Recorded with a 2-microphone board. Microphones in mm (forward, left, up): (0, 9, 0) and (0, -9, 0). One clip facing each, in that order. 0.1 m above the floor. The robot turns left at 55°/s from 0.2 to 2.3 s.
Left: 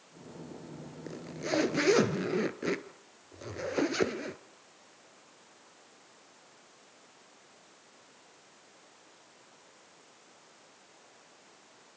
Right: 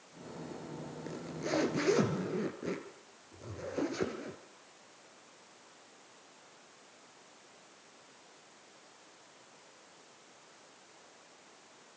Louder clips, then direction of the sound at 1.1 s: Left 2 dB; 175° left.